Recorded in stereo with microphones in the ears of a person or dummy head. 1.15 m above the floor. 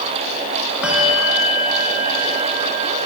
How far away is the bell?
About 1.3 m.